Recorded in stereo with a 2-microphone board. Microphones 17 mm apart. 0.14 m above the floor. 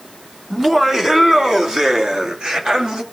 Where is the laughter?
25° right (ahead or behind), 1.7 m; by 3.0 s 50° right (ahead or behind), 3 m.